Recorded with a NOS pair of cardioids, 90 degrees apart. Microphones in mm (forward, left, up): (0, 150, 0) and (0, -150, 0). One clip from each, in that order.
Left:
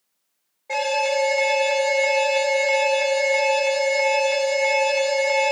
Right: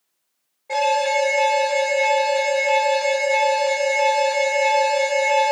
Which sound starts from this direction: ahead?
An alarm, at 0.7 s.